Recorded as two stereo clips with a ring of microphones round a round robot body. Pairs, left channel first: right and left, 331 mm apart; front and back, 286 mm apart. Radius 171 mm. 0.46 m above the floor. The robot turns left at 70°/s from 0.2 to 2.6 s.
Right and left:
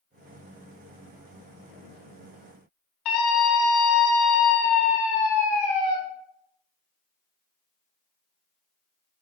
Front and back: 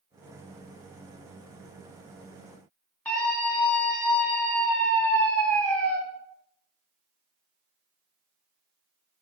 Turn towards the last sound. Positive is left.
turn(degrees=-85)